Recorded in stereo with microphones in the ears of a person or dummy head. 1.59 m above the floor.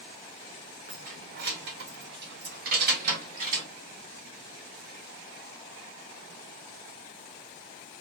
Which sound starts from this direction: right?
Keys jangling, at 0.9 s.